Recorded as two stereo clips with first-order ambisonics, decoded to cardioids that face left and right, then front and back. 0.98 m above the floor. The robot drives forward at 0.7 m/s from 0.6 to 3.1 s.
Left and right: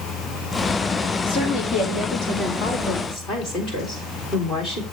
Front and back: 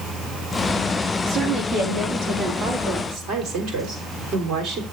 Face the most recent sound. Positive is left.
turn(degrees=145)